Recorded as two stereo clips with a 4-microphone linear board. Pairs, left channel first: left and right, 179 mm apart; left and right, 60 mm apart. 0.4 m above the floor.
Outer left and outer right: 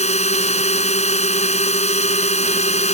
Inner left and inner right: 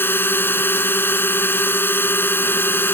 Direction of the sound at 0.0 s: 40° left (ahead or behind).